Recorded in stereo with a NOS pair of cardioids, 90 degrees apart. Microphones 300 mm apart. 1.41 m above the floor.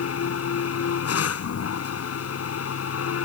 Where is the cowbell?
No cowbell in this recording.